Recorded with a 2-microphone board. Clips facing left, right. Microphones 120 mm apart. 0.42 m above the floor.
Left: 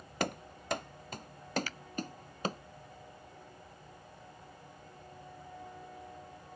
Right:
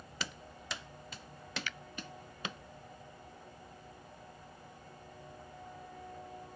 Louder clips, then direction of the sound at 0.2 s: Left 10 dB; 55° left (ahead or behind).